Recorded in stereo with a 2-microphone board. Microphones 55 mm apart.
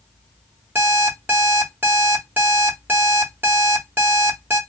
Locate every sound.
0.8 s an alarm clock: 40° right (ahead or behind), 1.2 m